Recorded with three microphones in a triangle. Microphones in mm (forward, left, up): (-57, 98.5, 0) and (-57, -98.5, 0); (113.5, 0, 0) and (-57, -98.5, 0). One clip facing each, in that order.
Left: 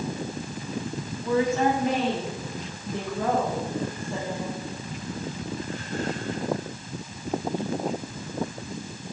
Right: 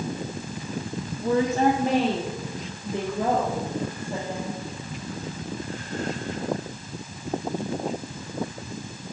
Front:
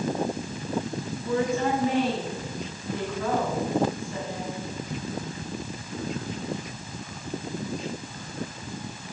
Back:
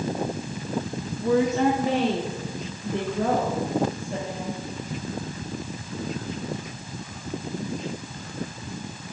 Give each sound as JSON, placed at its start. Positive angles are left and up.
{"t": 1.2, "sound": "a woman speaking", "azimuth_deg": -135, "distance_m": 1.3}